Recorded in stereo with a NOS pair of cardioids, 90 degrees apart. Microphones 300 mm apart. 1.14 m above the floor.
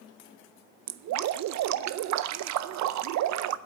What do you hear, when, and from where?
0.9 s dripping: 65° right, 0.6 m